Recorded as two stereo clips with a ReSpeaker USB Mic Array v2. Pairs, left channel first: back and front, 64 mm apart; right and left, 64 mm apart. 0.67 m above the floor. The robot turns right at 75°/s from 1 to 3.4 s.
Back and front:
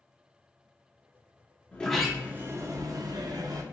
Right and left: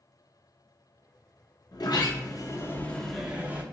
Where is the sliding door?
110° right, 0.7 m; by 3.6 s 20° left, 0.7 m.